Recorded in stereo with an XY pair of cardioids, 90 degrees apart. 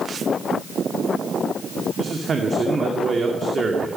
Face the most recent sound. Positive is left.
turn(degrees=-45)